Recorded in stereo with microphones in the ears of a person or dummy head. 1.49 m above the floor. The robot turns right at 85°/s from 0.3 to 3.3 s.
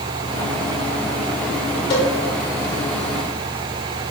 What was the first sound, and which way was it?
A cowbell, 30° left (ahead or behind).